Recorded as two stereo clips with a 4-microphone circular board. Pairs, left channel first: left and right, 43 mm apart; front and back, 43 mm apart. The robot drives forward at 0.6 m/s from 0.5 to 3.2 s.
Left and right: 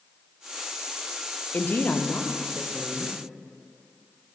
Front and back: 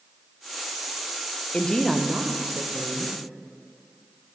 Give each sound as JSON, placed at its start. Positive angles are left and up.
{"t": 1.5, "sound": "a woman speaking", "azimuth_deg": 55, "distance_m": 0.6}